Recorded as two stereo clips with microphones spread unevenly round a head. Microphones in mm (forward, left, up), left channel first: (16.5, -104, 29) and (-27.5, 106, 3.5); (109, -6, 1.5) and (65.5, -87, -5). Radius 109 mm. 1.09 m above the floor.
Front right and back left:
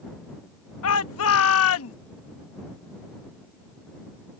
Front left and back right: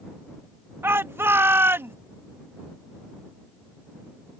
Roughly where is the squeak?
No squeak in this recording.